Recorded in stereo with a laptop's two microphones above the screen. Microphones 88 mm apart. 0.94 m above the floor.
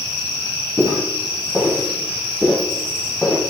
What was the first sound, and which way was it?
Footsteps, 30° right (ahead or behind).